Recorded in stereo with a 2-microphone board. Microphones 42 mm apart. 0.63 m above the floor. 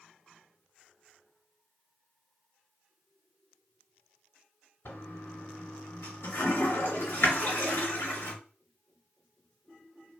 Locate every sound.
4.8 s a toilet flushing: 80° left, 1.4 m